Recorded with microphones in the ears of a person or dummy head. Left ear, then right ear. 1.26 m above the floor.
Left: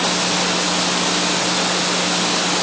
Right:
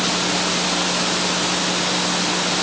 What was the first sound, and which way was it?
Only background noise.